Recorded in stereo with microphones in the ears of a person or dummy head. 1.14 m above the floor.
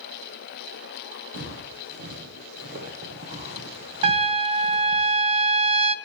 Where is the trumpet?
35° right (ahead or behind), 0.5 m.